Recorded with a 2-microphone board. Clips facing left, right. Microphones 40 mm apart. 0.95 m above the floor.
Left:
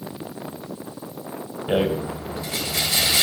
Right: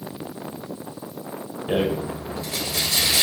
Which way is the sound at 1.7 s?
10° left (ahead or behind).